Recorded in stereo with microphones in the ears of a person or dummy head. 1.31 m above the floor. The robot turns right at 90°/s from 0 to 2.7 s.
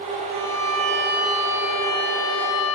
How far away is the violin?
About 5.5 m.